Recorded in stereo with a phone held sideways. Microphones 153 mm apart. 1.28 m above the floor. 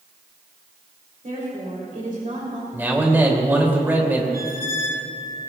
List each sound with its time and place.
1.2 s a woman speaking: 55° right (ahead or behind), 3.5 m
2.7 s a man speaking: 15° right (ahead or behind), 3 m
4.3 s a squeak: 25° right (ahead or behind), 1.4 m